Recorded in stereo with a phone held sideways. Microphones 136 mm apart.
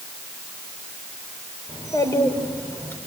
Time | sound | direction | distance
1.7 | a child speaking | 25° left (ahead or behind) | 4.5 m